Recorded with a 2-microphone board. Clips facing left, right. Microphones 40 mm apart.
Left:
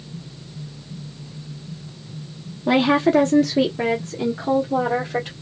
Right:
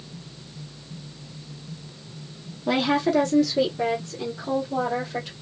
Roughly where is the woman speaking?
Centre.